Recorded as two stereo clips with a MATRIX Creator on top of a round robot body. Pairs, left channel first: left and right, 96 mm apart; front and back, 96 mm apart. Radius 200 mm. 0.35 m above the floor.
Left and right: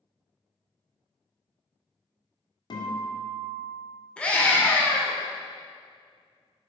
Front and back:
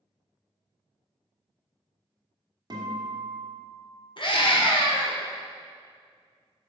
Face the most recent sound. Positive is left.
turn(degrees=15)